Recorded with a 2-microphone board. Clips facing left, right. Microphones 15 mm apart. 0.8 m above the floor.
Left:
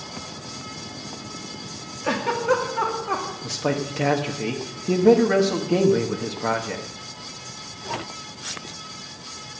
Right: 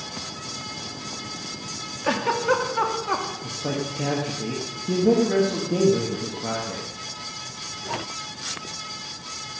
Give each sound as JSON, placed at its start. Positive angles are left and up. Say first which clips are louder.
{"t": 2.0, "sound": "a giggle", "louder": "even", "side_deg": -10, "distance_m": 1.8}
{"t": 3.4, "sound": "a man speaking", "louder": "left 3 dB", "side_deg": 40, "distance_m": 1.3}